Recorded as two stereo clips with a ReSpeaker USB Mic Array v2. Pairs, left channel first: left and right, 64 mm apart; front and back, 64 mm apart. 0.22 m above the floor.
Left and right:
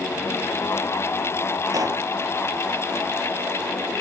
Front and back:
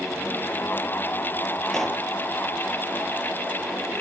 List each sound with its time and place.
1.7 s a pop: 85° right, 2.5 m